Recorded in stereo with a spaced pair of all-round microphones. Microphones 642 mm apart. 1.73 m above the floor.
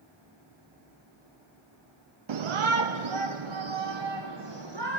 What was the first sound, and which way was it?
A shout, 50° right (ahead or behind).